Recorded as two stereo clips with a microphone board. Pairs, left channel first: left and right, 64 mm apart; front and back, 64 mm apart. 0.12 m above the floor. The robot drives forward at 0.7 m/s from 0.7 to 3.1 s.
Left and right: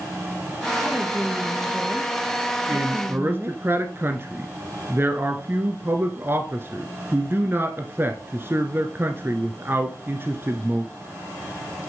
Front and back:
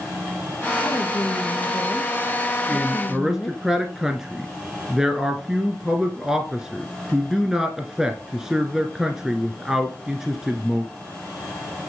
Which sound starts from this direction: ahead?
A woman speaking, at 0.8 s.